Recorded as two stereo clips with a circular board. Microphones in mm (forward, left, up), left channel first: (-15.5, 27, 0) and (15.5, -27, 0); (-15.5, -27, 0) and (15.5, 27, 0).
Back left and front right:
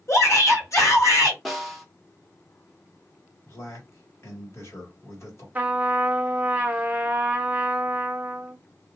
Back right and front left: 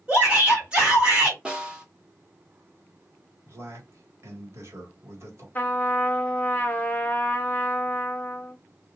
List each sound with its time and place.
0.1 s a shout: 125° left, 2.0 m
1.4 s a snare drum: 35° left, 1.1 m
3.5 s a man speaking: 90° left, 1.7 m
5.5 s a trumpet: 95° right, 0.6 m